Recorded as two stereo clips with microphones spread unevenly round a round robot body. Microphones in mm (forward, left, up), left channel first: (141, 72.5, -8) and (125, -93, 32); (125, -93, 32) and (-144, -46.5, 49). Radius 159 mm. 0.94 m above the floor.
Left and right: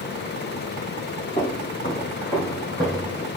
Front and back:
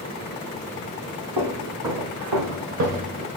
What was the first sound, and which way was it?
Footsteps, 155° left.